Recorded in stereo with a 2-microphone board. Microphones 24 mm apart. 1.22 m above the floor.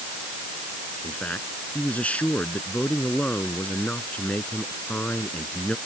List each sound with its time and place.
1.0 s a man speaking: 70° left (ahead or behind)